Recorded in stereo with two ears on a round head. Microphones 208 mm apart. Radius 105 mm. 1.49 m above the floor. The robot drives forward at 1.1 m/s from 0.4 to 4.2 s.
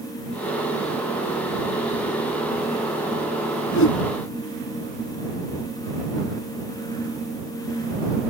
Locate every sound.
3.7 s a whoosh: 60° left (ahead or behind); by 4.0 s 65° left (ahead or behind)